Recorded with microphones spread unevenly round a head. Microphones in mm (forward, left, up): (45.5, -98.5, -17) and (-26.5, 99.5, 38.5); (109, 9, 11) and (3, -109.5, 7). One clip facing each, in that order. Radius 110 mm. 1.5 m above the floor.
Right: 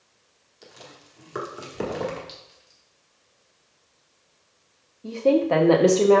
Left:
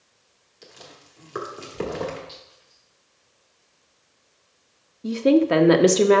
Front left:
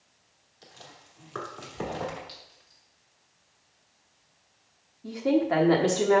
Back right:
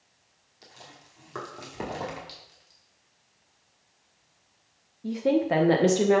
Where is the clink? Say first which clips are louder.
Even, even; 100° right, 2.5 m.